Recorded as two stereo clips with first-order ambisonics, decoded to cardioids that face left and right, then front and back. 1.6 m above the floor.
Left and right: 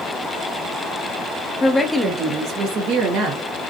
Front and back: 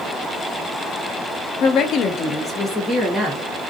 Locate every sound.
1.6 s a woman speaking: 25° left, 0.6 m; by 3.4 s 100° right, 1.0 m